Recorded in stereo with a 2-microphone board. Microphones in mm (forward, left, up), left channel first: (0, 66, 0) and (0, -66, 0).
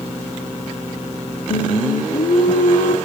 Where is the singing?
85° left, 0.6 m.